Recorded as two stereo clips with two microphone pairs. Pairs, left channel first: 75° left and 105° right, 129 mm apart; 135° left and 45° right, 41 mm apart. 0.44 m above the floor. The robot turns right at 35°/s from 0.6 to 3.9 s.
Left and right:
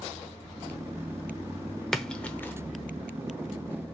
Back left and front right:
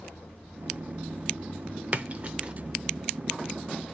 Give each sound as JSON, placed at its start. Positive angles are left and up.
{"t": 1.9, "sound": "a splash", "azimuth_deg": -15, "distance_m": 0.7}